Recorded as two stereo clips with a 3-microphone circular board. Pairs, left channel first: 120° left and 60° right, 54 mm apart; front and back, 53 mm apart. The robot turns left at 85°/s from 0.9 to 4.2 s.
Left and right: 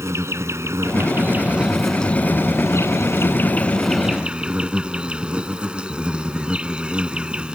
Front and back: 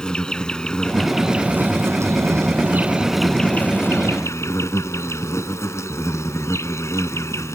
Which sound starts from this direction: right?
An insect, at 0.0 s.